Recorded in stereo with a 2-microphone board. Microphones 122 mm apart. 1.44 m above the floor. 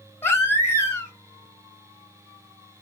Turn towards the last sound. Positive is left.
turn(degrees=15)  # may be behind; listen again after turning